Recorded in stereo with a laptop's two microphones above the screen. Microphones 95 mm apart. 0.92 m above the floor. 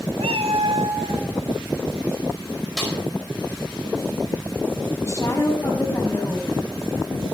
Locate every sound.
0.2 s a cat meowing: 80° right, 1.0 m
2.8 s a snare drum: 5° left (ahead or behind), 4.5 m
5.0 s a woman speaking: 35° left (ahead or behind), 6 m